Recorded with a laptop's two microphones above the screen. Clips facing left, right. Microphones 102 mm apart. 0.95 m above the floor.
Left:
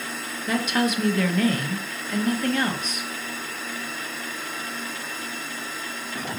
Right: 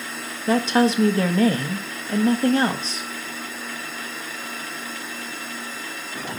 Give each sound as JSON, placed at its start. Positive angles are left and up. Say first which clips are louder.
{"t": 0.5, "sound": "a woman speaking", "louder": "right 5 dB", "side_deg": -30, "distance_m": 0.8}